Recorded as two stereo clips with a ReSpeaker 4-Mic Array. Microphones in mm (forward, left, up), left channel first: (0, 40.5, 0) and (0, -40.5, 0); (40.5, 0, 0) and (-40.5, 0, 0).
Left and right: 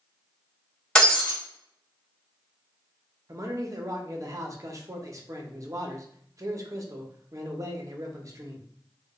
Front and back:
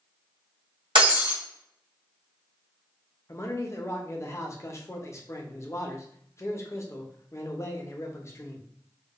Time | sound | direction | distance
0.9 | breaking glass | 170° left | 1.2 m
3.3 | a man speaking | 50° right | 0.6 m